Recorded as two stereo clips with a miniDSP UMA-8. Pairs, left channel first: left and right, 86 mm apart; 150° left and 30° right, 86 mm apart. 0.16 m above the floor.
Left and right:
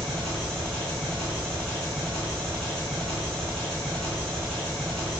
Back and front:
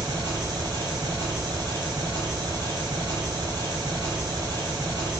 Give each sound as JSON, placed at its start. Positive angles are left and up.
{"t": 0.0, "sound": "an engine running", "azimuth_deg": 5, "distance_m": 1.0}